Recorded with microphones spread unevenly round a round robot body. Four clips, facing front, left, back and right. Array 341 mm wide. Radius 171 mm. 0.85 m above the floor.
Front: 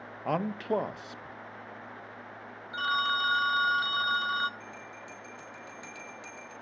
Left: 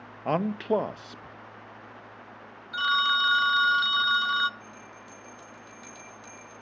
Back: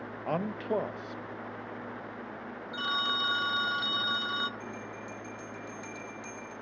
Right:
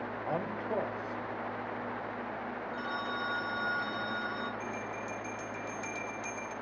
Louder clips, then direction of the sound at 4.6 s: Right 9 dB, back 4 dB; 55° right.